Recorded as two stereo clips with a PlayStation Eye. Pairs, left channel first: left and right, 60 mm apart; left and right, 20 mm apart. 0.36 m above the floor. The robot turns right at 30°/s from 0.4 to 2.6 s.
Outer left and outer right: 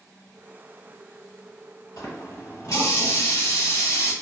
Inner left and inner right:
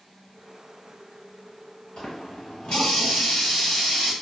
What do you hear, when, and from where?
2.0 s a running tap: 70° left (ahead or behind), 1.7 m; by 4.1 s 60° left (ahead or behind), 1.7 m